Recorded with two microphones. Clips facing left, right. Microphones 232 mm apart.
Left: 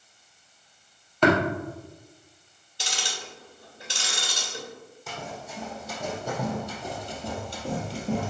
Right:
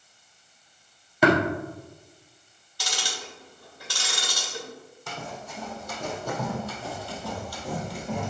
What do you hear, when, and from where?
1.2 s tapping: 10° right (ahead or behind), 2.5 m
2.8 s ticking: 20° left (ahead or behind), 2.5 m
5.1 s running footsteps: 5° left (ahead or behind), 4 m; by 8.3 s 35° left (ahead or behind), 1.9 m